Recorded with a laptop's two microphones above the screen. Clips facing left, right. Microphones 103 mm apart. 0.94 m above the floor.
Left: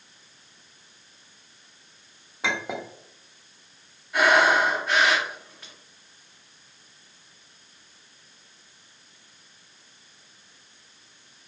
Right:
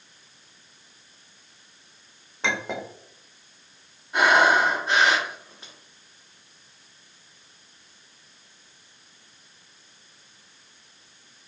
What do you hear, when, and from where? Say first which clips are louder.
2.4 s a clink: right 1 dB; 5° left (ahead or behind), 0.5 m
4.1 s breathing: right 1 dB; 25° right (ahead or behind), 1.3 m